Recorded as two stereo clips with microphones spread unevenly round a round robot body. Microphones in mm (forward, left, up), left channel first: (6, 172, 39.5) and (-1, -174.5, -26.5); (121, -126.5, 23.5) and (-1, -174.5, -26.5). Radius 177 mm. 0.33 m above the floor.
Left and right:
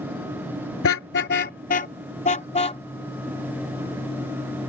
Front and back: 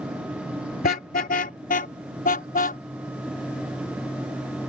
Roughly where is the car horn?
Ahead left.